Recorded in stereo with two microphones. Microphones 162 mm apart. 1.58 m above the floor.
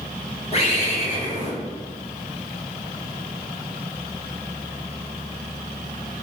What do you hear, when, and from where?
0.5 s a bird: 40° left (ahead or behind), 0.8 m